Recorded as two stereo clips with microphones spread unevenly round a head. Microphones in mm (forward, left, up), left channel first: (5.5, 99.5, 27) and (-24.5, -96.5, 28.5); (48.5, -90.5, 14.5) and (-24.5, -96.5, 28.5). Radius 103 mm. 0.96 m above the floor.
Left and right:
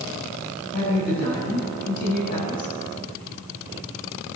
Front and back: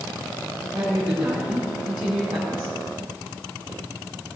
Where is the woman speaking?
125° left, 5 m.